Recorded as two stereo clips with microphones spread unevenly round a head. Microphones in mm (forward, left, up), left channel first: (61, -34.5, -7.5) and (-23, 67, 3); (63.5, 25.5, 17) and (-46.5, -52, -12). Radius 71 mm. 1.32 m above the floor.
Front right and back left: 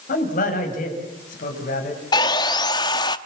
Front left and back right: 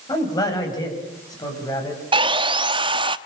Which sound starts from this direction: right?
Sawing, at 2.1 s.